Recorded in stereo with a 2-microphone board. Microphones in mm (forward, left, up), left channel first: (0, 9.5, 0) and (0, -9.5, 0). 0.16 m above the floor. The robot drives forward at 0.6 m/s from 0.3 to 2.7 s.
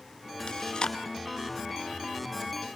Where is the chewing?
60° left (ahead or behind), 0.8 m; by 1.0 s 55° left (ahead or behind), 0.9 m.